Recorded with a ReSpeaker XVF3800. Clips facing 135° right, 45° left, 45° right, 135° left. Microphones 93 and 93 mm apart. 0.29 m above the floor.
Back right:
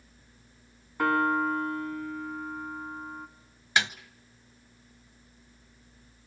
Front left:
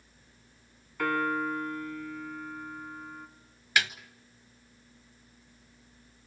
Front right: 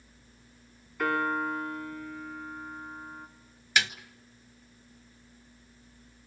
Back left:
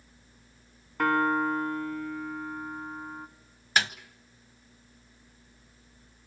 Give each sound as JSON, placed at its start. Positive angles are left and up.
{"t": 1.0, "sound": "a piano", "azimuth_deg": 165, "distance_m": 2.5}
{"t": 3.8, "sound": "a snare drum", "azimuth_deg": 170, "distance_m": 0.9}